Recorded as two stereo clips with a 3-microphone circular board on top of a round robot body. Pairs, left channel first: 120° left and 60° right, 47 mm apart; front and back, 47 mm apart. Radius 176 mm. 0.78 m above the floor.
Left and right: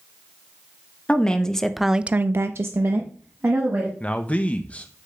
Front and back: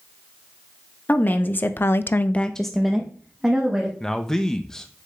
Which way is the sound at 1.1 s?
50° left.